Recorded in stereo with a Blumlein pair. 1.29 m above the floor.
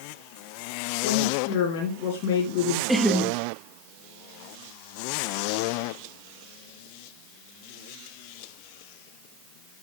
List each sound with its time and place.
1.0 s a woman speaking: 45° left, 4.5 m
2.9 s laughter: 5° right, 1.5 m